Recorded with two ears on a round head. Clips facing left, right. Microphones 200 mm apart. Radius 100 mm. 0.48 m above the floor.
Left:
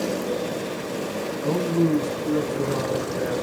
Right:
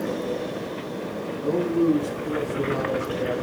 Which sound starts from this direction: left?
A man speaking, at 1.4 s.